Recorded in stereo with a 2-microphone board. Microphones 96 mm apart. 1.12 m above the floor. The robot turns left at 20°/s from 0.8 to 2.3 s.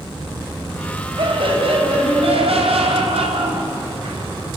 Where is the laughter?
60° right (ahead or behind), 5.5 m; by 4.2 s 85° right, 5.5 m.